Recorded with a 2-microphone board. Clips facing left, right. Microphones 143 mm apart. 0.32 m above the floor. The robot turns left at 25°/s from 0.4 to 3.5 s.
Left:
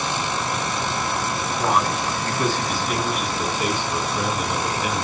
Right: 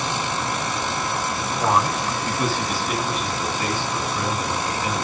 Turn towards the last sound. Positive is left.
turn(degrees=165)